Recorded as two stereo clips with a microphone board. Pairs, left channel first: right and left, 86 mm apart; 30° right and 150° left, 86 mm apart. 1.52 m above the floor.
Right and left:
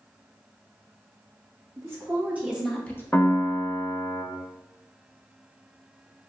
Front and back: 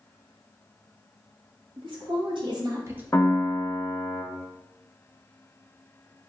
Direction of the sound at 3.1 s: 45° right.